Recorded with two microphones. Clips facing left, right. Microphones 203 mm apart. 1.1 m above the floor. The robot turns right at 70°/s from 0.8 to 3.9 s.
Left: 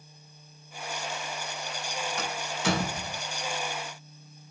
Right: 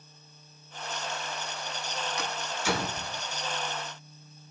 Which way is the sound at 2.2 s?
55° left (ahead or behind).